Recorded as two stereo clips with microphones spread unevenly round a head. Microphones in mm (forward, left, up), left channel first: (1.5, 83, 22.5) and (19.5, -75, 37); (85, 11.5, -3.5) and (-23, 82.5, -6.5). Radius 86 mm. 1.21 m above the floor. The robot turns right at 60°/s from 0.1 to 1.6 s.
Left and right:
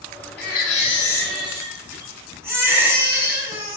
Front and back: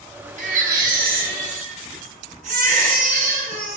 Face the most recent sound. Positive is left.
turn(degrees=-160)